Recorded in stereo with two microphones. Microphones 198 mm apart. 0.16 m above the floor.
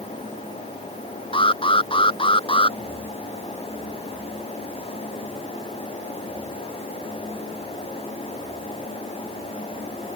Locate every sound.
1.3 s an alarm: 25° left (ahead or behind)